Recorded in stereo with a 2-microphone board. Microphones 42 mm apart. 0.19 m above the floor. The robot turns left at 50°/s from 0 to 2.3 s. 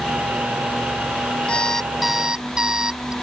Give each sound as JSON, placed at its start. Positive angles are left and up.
{"t": 1.5, "sound": "an alarm clock", "azimuth_deg": 25}